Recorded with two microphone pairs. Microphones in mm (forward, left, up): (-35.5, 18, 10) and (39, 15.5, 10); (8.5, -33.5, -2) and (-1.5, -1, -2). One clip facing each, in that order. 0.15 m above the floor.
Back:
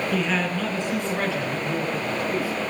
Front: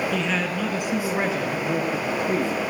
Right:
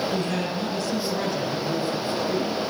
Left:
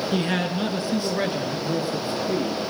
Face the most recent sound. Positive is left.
turn(degrees=40)